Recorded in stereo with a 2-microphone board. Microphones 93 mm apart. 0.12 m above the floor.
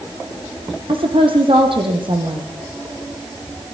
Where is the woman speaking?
70° right (ahead or behind), 4.5 m; by 2.5 s 60° right (ahead or behind), 4.5 m.